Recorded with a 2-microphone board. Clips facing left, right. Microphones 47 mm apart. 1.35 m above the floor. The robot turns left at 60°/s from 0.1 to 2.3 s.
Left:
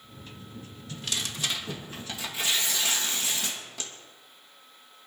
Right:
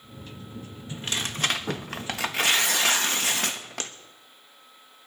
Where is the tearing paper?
25° right, 1.1 m; by 3.9 s 110° right, 1.1 m.